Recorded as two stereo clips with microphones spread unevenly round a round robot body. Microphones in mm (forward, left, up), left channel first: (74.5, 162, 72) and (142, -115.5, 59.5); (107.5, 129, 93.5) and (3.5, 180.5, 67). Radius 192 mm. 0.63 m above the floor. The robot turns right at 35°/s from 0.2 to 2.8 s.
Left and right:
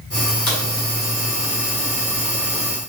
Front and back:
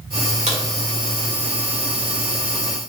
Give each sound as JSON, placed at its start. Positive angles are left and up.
{"t": 0.5, "sound": "a crack", "azimuth_deg": 145, "distance_m": 1.7}